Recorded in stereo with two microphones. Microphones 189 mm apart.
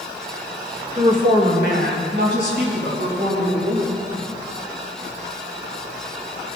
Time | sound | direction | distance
1.0 | a woman speaking | 35° right (ahead or behind) | 1.3 m